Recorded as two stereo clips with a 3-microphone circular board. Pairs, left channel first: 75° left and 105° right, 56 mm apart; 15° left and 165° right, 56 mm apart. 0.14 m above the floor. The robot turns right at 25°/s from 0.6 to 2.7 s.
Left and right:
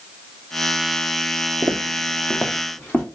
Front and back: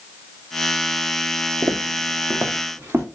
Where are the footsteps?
140° right, 0.8 m; by 3.0 s 140° left, 1.9 m.